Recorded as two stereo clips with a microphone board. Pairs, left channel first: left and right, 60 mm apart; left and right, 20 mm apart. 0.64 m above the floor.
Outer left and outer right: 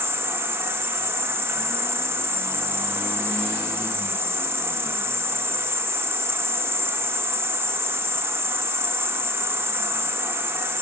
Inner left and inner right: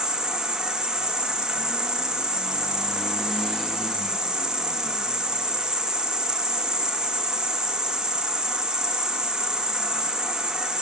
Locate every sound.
0.0 s an insect: 40° right (ahead or behind), 1.0 m